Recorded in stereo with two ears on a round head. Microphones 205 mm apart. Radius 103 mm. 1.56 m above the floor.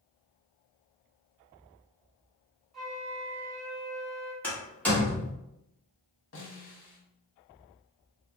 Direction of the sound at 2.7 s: Centre (ahead or behind).